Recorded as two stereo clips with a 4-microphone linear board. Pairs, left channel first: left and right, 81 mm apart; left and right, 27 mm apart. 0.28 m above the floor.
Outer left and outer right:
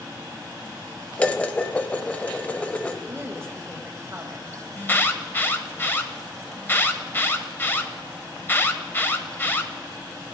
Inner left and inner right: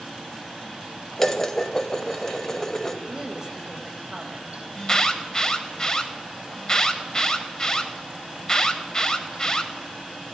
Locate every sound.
1.2 s dishes clattering: 15° left (ahead or behind), 0.6 m
3.1 s a woman speaking: 30° right (ahead or behind), 1.2 m
4.8 s an alarm: 25° left (ahead or behind), 0.8 m